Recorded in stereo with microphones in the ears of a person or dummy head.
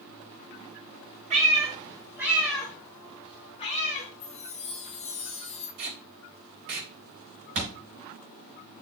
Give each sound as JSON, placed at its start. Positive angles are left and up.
{"t": 1.3, "sound": "a cat meowing", "side_deg": -35, "distance_m": 1.8}
{"t": 4.2, "sound": "a chime", "side_deg": 40, "distance_m": 1.6}
{"t": 5.8, "sound": "tape being pulled", "side_deg": -45, "distance_m": 1.6}
{"t": 7.5, "sound": "a thud", "side_deg": -40, "distance_m": 4.5}